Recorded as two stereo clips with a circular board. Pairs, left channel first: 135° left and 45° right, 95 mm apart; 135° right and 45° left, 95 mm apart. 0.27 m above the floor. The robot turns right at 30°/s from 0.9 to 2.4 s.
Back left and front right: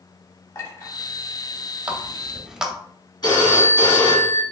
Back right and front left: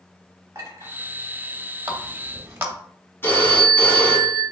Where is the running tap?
15° left, 0.7 m; by 2.8 s 30° left, 0.7 m.